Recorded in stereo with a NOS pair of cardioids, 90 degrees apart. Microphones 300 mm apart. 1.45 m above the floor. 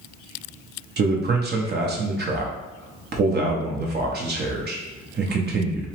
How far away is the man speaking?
About 0.6 m.